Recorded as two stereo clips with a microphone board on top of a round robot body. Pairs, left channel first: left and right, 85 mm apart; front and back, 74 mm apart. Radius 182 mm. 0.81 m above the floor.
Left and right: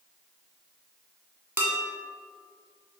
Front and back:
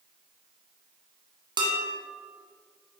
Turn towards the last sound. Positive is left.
turn(degrees=-155)